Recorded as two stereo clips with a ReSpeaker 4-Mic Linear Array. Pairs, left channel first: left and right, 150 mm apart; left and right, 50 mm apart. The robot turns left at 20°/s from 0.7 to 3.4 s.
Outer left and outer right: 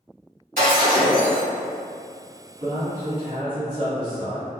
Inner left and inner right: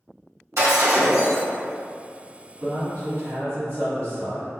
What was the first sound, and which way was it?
Breaking glass, 75° right (ahead or behind).